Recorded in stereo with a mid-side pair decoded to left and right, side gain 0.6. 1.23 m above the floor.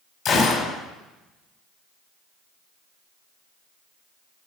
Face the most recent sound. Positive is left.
turn(degrees=30)